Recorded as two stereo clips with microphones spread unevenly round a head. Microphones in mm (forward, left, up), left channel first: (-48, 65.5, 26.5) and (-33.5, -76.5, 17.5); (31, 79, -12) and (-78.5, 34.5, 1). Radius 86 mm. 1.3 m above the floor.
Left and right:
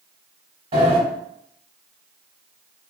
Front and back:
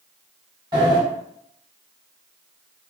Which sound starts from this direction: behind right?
A sliding door, at 0.7 s.